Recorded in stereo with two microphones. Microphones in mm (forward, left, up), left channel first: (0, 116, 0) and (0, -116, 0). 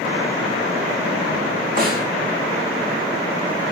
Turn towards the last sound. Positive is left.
turn(degrees=-40)  # may be behind; listen again after turning